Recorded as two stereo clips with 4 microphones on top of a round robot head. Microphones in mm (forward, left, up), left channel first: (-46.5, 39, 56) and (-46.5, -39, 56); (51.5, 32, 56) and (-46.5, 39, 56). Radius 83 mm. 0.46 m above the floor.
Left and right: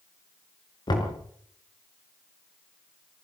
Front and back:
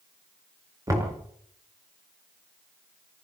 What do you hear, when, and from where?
0.9 s knocking: 120° left, 6.5 m